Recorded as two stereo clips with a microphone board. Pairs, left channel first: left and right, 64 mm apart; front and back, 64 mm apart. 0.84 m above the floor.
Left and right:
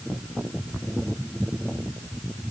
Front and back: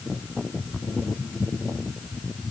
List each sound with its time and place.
Only background noise.